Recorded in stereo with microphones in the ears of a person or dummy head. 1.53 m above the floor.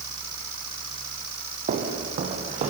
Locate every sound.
1.7 s footsteps: 45° right (ahead or behind), 3 m; by 2.7 s 35° right (ahead or behind), 2.5 m